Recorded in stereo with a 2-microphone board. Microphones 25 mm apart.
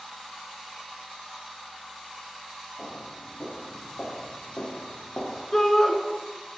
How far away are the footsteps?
About 3.5 m.